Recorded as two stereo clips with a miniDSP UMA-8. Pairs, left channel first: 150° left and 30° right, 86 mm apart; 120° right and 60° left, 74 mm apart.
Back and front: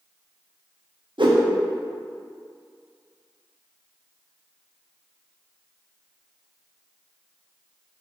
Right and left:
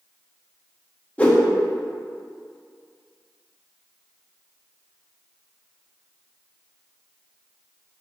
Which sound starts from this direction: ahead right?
A whoosh, at 1.2 s.